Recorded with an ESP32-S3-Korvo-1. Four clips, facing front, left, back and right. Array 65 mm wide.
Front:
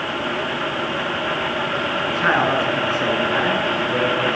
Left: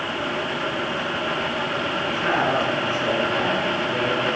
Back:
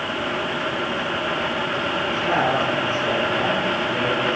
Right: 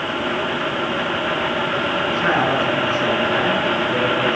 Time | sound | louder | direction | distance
2.1 | a man speaking | right 2 dB, front 3 dB | 20° right | 9 m